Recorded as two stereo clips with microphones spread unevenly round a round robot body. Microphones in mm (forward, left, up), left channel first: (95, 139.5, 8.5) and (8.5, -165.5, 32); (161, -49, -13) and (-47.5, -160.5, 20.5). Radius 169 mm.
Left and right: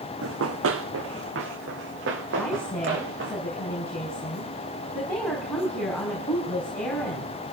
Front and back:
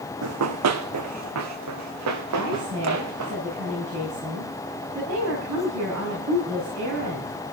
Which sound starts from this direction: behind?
A woman speaking, at 2.4 s.